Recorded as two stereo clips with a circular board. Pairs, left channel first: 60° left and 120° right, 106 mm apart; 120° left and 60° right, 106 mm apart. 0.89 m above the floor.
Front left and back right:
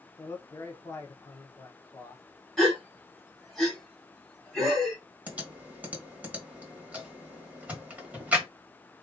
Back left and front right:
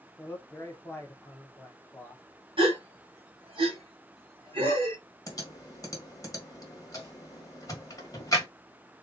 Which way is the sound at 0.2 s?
80° left.